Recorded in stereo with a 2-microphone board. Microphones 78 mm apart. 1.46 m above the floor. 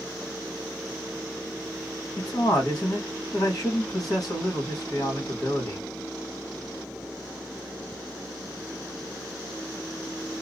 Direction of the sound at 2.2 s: 50° left (ahead or behind).